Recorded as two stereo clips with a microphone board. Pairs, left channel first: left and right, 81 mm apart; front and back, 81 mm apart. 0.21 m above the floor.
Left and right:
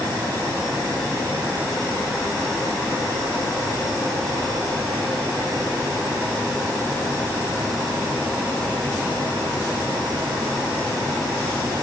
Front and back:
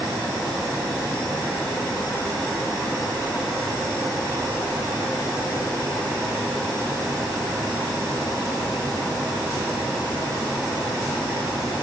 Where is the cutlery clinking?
I don't hear cutlery clinking.